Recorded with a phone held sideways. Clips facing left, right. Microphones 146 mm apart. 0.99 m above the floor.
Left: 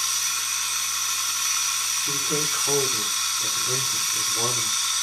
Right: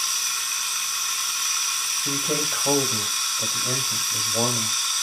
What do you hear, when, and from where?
0.0 s running water: centre (ahead or behind), 0.9 m
2.0 s a man speaking: 75° right (ahead or behind), 4 m